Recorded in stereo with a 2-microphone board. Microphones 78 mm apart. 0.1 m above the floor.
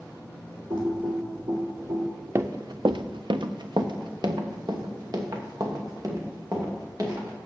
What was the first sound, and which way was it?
Typing on a keyboard, 75° right (ahead or behind).